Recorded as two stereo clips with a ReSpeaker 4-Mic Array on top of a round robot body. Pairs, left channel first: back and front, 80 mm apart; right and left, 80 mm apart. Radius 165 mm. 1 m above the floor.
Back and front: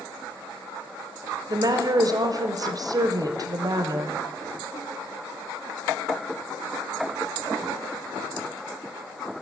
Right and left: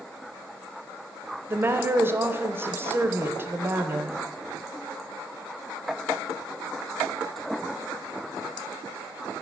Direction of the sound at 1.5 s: 30° left.